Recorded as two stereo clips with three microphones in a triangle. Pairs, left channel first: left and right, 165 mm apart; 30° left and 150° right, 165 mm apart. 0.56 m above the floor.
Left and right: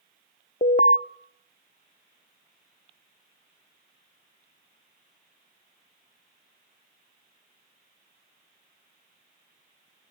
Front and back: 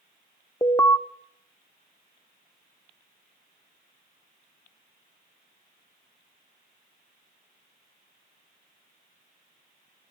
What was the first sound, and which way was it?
An alarm, 95° left.